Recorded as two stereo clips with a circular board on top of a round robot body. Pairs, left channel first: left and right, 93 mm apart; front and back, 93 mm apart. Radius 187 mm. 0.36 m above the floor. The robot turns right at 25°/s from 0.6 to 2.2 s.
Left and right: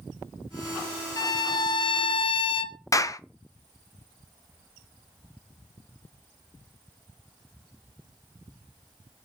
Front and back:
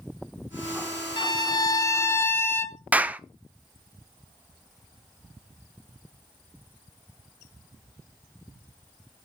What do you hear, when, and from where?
1.2 s a violin: 40° left, 0.8 m; by 2.8 s 65° left, 0.8 m
2.9 s a clap: 115° left, 0.8 m